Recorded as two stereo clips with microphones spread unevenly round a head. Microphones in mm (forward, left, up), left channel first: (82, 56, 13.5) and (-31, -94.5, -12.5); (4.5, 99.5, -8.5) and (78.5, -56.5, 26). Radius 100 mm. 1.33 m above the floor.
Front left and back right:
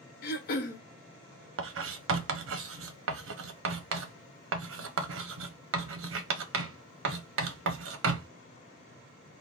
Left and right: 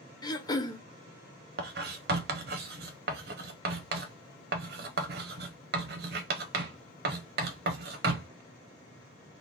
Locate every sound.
0.2 s throat clearing: 45° left, 0.9 m
1.6 s writing: 110° right, 0.6 m